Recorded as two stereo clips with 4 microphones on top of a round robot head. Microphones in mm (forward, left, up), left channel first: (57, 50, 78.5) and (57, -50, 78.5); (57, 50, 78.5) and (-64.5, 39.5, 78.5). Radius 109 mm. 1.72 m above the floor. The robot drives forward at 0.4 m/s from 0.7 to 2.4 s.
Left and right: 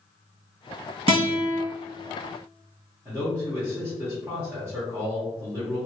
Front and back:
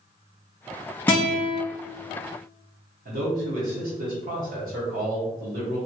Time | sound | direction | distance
1.1 | a guitar | 75° right | 1.6 m
3.0 | a man speaking | 170° right | 0.9 m